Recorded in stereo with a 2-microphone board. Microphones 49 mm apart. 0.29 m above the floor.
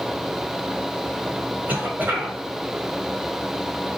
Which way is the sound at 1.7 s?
35° right (ahead or behind).